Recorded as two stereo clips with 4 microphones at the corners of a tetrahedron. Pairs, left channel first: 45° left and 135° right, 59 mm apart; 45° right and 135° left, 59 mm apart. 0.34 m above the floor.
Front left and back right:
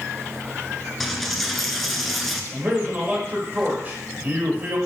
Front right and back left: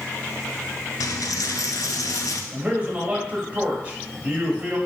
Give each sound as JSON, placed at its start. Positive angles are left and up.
{"t": 1.0, "sound": "a dropped coin", "azimuth_deg": -45, "distance_m": 0.8}
{"t": 2.5, "sound": "a man speaking", "azimuth_deg": -175, "distance_m": 1.8}